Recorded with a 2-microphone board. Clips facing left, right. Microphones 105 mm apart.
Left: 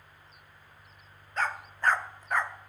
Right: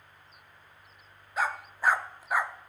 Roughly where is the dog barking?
Centre.